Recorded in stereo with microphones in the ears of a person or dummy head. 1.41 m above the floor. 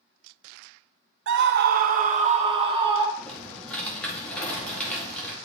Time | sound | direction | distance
1.3 | a scream | 70° right (ahead or behind) | 0.6 m
3.2 | typing on a keyboard | 5° left (ahead or behind) | 2 m